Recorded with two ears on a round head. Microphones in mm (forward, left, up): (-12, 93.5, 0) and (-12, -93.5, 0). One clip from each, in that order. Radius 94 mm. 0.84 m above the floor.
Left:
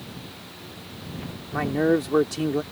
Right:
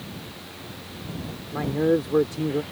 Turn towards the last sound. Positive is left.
turn(degrees=70)  # may be behind; listen again after turning